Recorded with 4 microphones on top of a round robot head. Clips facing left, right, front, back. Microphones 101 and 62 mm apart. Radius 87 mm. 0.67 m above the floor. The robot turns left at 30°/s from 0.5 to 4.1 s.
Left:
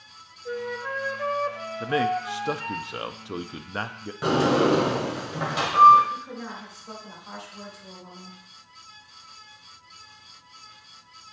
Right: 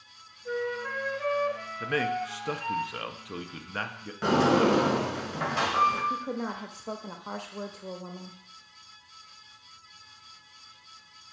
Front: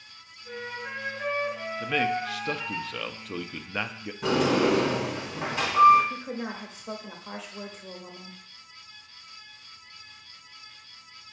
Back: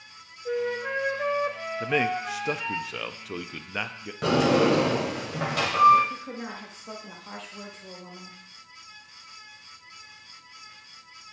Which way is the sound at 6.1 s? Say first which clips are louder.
Right 3 dB, front 2 dB; 80° right.